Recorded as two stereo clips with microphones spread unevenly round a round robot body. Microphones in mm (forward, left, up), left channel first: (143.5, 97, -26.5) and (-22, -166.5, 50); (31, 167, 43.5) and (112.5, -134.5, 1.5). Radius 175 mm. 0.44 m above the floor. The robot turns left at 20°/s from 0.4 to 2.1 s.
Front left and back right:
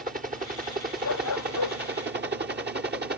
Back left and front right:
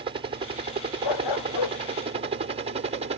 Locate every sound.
0.0 s a helicopter: 65° right; by 3.2 s 75° right
1.0 s a dog barking: 115° left; by 1.8 s 100° left